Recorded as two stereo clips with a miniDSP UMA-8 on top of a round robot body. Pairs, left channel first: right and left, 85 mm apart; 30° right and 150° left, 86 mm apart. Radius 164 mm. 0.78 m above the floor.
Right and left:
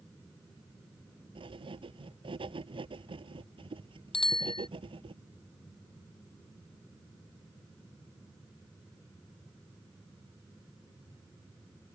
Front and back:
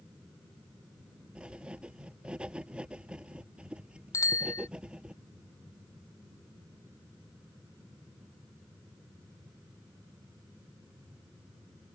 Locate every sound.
1.4 s writing: 70° left
4.1 s a bicycle bell: 85° right